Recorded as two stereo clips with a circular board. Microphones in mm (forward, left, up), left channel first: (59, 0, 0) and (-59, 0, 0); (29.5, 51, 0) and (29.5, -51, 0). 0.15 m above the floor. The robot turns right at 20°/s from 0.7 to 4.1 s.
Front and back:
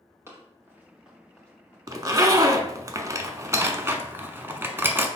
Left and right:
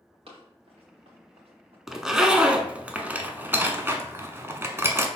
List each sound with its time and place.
0.3 s running footsteps: 110° right, 2 m; by 1.8 s 75° right, 3 m
1.9 s a zipper: 175° right, 0.5 m; by 5.1 s 130° right, 0.5 m